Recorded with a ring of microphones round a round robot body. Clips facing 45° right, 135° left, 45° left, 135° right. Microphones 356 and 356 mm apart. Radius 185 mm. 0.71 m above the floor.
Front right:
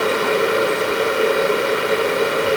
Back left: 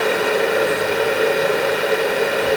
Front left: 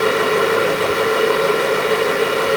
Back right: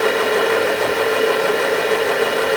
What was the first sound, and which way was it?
Only background noise.